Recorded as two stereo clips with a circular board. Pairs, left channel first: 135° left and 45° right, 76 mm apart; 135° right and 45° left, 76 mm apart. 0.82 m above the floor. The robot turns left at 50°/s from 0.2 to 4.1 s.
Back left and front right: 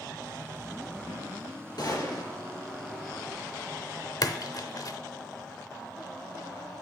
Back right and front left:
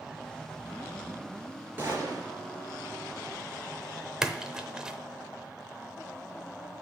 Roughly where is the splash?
Behind left.